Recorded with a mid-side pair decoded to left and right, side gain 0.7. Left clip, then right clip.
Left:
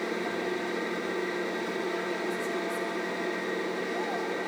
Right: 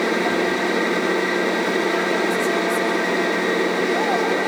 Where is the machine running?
50° right, 1.0 m.